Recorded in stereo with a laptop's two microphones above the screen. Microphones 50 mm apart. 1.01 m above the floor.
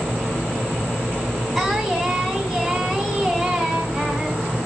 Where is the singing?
Centre (ahead or behind), 1.9 m.